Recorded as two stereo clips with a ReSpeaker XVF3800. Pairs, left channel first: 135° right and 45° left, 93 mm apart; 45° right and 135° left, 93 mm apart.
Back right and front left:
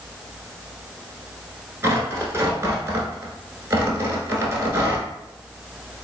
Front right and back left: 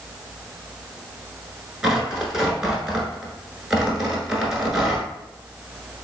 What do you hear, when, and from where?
1.8 s tearing paper: 55° left, 1.0 m